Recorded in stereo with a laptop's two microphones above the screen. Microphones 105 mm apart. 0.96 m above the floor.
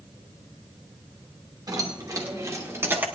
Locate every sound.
1.7 s keys jangling: 35° right (ahead or behind), 1.9 m; by 3.0 s 20° right (ahead or behind), 1.0 m